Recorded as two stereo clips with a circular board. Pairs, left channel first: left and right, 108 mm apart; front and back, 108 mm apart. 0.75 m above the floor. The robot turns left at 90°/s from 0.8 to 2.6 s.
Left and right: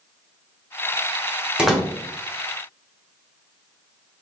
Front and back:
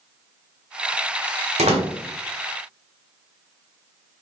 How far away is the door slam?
About 1.8 m.